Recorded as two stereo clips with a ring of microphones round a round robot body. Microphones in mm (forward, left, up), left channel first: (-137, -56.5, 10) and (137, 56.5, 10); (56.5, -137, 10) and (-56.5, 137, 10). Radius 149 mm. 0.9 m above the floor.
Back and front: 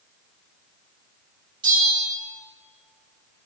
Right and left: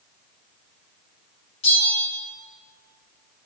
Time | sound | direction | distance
1.6 | a bell | 55° right | 4.5 m